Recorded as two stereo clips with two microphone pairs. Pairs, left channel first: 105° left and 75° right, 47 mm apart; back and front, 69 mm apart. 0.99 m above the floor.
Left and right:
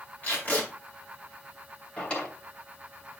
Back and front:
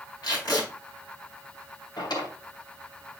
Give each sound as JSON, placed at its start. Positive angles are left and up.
{"t": 0.2, "sound": "tape being pulled", "azimuth_deg": 155, "distance_m": 4.0}
{"t": 2.0, "sound": "a drawer", "azimuth_deg": 170, "distance_m": 2.5}